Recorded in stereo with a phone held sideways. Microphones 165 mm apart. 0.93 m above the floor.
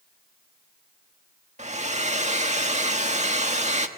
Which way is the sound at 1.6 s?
45° right (ahead or behind).